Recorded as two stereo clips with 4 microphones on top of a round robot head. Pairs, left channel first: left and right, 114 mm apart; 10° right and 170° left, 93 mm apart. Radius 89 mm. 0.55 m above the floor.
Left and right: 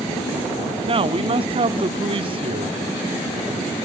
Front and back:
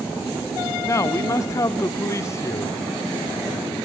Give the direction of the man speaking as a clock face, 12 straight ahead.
2 o'clock.